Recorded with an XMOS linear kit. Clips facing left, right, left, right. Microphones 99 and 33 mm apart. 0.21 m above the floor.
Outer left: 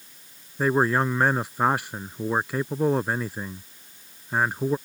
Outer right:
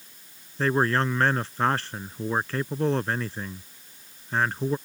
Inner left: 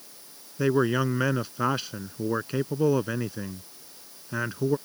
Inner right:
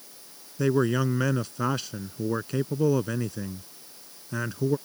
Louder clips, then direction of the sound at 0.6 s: Outer left 2 dB, even; 10° left (ahead or behind).